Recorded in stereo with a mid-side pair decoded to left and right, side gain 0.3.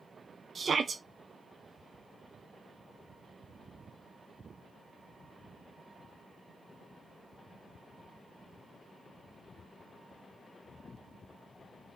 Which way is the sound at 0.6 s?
55° right.